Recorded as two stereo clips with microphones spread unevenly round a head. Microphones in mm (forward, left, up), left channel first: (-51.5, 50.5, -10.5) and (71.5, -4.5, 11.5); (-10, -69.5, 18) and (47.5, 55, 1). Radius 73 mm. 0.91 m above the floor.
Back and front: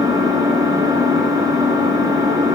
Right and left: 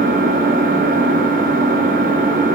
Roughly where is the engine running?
Ahead left.